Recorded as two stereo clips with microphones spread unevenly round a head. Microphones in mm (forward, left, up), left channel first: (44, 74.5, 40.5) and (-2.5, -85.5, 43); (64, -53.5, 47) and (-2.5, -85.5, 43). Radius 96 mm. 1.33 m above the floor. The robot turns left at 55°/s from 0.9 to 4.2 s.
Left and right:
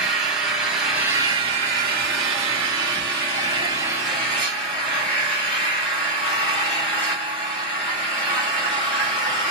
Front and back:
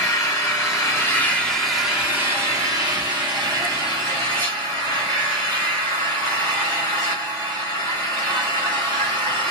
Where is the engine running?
20° right, 2.0 m; by 9.5 s 160° left, 2.0 m.